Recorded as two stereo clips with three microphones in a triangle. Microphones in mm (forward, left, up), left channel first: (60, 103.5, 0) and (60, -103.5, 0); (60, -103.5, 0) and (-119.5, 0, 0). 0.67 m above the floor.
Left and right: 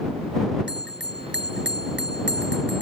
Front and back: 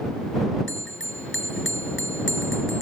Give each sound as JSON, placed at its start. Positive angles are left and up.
{"t": 0.7, "sound": "a bell", "azimuth_deg": -55}